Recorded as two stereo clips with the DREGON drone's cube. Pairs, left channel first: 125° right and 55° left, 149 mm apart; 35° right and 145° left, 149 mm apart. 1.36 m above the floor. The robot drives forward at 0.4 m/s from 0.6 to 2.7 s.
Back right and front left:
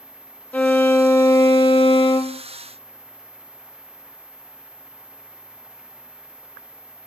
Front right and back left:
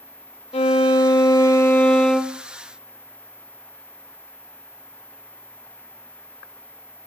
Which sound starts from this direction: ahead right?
A violin, at 0.5 s.